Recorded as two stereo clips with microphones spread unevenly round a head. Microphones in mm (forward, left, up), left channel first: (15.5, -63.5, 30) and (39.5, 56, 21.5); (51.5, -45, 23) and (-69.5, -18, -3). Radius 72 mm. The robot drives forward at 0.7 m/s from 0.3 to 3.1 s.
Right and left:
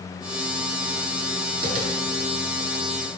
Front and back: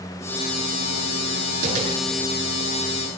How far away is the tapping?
About 7 m.